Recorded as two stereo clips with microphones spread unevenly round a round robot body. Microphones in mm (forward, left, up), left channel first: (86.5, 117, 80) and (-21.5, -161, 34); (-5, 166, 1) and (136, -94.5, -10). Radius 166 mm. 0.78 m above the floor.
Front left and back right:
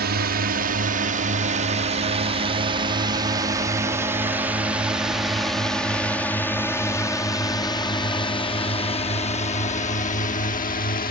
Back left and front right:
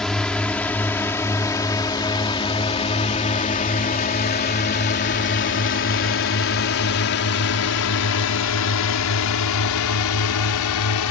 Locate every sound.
0.0 s a drone: 155° right; by 11.1 s 130° left